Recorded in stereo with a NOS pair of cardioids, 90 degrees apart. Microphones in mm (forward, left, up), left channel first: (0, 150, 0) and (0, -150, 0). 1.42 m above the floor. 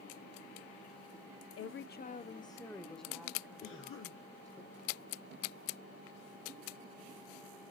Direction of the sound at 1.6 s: 50° left.